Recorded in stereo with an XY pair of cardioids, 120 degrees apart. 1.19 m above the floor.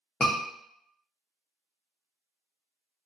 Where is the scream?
15° left, 0.7 m.